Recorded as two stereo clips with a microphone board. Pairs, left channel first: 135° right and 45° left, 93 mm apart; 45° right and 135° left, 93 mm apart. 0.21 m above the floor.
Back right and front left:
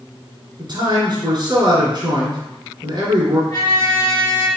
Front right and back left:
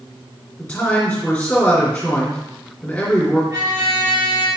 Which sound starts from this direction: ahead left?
A man speaking, at 0.6 s.